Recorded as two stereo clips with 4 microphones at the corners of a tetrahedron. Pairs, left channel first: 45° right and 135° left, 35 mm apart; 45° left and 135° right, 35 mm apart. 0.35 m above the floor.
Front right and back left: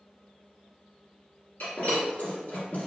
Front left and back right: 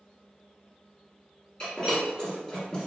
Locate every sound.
1.6 s breaking glass: 25° right, 1.4 m